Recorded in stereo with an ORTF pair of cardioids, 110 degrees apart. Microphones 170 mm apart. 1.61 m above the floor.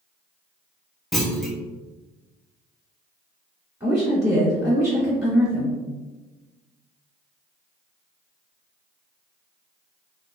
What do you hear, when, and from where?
1.1 s a clunk: straight ahead, 0.5 m
3.8 s a woman speaking: 10° right, 1.8 m